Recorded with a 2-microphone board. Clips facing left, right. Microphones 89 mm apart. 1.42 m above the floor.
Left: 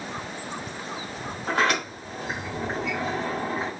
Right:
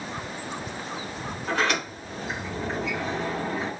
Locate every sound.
1.5 s a sliding door: 70° left (ahead or behind), 2.0 m